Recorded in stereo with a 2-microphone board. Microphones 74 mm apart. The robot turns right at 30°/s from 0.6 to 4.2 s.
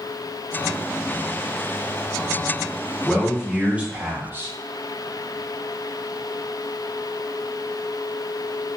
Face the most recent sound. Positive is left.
turn(degrees=-150)